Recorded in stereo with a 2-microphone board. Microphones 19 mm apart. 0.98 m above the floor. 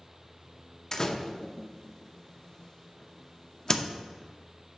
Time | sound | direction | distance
0.9 | a door slam | 30° left (ahead or behind) | 0.6 m